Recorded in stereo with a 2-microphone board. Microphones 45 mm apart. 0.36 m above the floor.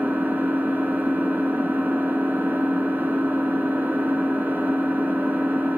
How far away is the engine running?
About 3.5 m.